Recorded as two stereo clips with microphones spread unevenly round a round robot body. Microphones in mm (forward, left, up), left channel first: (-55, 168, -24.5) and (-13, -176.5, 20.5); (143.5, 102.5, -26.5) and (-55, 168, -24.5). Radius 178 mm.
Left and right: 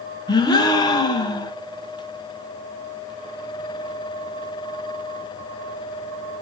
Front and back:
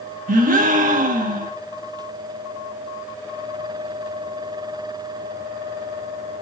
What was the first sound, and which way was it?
A gasp, 155° left.